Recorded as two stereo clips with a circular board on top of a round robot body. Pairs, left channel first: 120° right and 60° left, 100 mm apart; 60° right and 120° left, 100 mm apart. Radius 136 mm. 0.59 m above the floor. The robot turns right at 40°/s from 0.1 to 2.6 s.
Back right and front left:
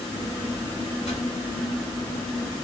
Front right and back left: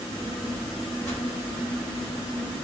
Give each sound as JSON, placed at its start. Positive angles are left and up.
{"t": 1.1, "sound": "a whoosh", "azimuth_deg": -140, "distance_m": 3.0}